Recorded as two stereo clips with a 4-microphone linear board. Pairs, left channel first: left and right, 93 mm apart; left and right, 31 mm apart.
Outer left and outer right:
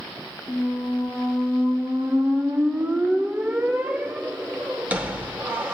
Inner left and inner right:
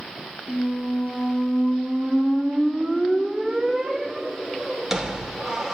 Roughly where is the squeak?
Centre.